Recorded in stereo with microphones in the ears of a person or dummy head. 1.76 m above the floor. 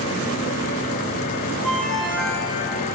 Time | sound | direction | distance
1.6 | a ringtone | centre (ahead or behind) | 5 m